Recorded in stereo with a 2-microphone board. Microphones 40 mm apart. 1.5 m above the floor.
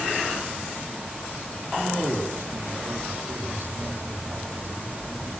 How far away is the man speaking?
About 4 m.